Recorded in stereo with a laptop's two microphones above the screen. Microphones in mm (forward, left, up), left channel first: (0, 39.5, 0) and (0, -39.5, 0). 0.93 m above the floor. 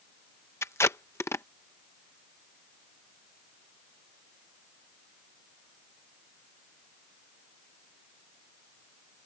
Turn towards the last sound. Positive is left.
turn(degrees=35)  # may be behind; listen again after turning